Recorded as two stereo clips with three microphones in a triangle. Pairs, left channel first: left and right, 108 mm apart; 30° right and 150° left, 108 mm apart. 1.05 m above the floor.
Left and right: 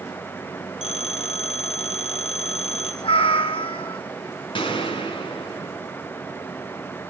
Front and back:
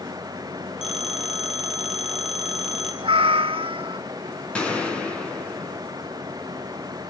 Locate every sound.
0.8 s a phone ringing: 65° left, 5 m
3.0 s a cat meowing: 120° left, 1.4 m
4.5 s a gunshot: 50° left, 6 m